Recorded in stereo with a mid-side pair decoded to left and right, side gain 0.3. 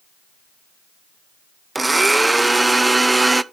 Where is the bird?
No bird in this recording.